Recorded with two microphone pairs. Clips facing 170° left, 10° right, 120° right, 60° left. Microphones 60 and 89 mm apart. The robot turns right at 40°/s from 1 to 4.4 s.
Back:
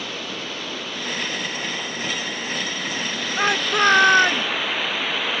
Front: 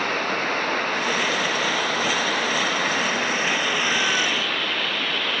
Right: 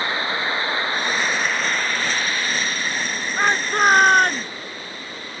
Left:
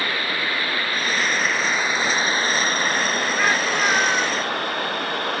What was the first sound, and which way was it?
Running water, 50° right.